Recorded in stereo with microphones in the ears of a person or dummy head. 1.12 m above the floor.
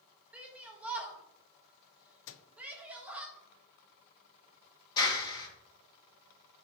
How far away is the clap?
About 1.8 m.